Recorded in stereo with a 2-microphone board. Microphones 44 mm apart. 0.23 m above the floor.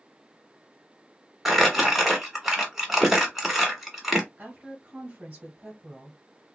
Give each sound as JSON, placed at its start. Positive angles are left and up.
{"t": 1.4, "sound": "crumpling", "side_deg": -5, "distance_m": 1.3}
{"t": 4.4, "sound": "a woman speaking", "side_deg": -20, "distance_m": 1.3}